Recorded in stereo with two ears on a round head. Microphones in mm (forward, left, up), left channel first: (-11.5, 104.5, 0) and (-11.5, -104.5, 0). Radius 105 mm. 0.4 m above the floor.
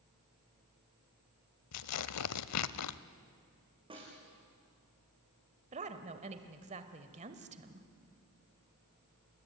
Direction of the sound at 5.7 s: 30° right (ahead or behind).